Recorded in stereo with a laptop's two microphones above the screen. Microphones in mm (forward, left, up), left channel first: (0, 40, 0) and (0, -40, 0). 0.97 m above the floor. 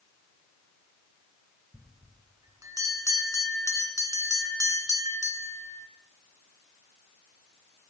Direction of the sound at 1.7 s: 45° right (ahead or behind).